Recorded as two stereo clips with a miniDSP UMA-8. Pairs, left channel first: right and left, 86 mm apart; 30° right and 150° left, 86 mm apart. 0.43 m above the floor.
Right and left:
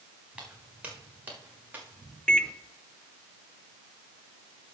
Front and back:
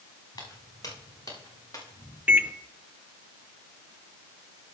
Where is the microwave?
160° right, 0.7 m.